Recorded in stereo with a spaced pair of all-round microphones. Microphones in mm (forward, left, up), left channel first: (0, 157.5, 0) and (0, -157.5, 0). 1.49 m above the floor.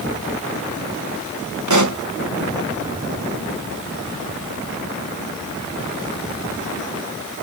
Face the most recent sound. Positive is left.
turn(degrees=-65)  # may be behind; listen again after turning